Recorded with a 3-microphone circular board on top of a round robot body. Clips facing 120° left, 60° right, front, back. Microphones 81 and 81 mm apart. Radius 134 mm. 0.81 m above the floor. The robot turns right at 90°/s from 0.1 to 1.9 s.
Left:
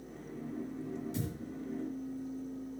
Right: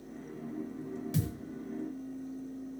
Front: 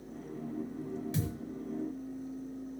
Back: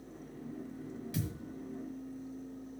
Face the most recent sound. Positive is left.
turn(degrees=10)